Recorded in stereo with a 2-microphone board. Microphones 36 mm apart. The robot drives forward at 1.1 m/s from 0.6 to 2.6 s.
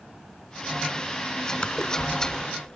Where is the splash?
30° left (ahead or behind); by 2.8 s 20° left (ahead or behind).